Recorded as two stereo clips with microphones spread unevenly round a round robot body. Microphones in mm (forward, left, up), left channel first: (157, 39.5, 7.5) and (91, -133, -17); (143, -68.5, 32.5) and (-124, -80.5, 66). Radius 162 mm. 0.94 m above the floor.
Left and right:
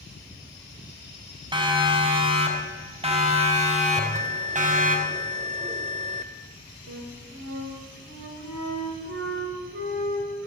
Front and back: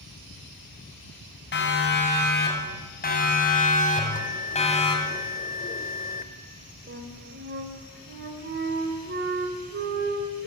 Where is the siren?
45° right, 7.5 m; by 5.0 s 65° right, 6 m.